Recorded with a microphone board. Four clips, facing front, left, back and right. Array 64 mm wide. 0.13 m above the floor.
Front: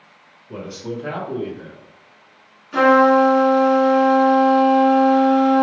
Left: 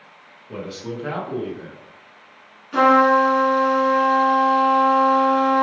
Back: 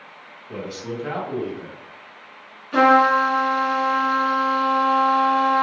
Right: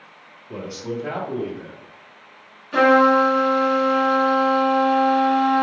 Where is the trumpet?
150° right, 1.6 m.